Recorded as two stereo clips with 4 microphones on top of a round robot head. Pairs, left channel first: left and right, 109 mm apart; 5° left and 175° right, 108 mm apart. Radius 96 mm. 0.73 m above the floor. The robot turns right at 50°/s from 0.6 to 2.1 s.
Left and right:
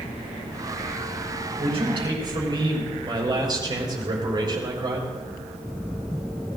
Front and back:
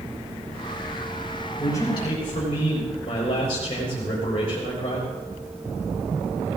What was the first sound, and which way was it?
A man speaking, 65° right.